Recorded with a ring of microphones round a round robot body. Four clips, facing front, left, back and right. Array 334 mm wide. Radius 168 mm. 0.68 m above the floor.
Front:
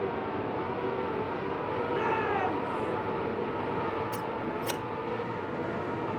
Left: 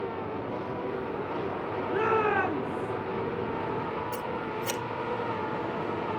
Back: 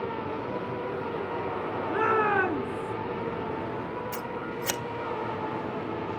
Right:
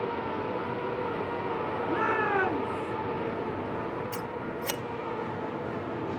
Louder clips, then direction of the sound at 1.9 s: Left 3 dB, back 6 dB; 165° right.